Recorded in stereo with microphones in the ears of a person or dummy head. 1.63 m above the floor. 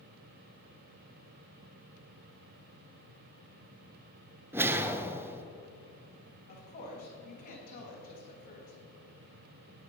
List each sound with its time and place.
4.5 s a whoosh: 10° right (ahead or behind), 0.6 m
6.5 s a woman speaking: 45° left (ahead or behind), 2 m